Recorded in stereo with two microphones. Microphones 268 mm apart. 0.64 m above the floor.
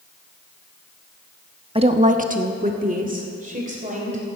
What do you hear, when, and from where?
1.8 s a woman speaking: 20° right (ahead or behind), 1.0 m; by 4.4 s 25° right (ahead or behind), 4 m